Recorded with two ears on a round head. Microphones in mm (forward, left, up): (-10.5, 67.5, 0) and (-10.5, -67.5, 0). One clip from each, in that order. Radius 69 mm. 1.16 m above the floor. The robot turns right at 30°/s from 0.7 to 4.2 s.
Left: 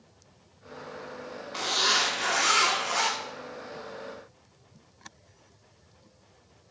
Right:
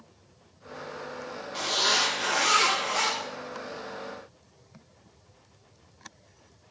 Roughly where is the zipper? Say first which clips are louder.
Even; ahead.